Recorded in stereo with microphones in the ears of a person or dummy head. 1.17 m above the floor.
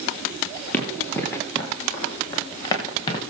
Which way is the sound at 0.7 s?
10° left (ahead or behind).